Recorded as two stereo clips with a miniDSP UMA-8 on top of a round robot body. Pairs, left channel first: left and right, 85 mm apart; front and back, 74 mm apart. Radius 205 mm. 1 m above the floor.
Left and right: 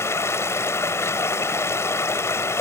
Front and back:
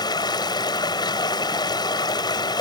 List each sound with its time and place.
0.0 s running water: 30° left